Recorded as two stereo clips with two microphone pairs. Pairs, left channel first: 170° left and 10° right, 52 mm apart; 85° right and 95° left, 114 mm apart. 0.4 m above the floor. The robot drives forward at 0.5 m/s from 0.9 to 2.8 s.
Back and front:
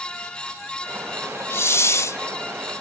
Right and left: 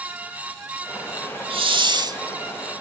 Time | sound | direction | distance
1.5 | a hiss | 135° left | 0.5 m